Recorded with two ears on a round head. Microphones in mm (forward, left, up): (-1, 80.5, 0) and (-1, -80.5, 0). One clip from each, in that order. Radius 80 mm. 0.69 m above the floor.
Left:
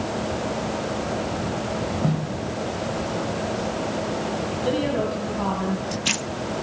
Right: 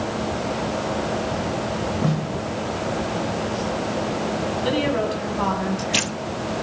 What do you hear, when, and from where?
2.0 s a snare drum: 25° right (ahead or behind), 1.2 m
4.6 s a woman speaking: 40° right (ahead or behind), 5 m